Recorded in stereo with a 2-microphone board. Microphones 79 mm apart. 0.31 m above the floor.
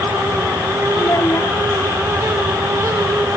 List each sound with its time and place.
1.0 s a child speaking: 40° left (ahead or behind)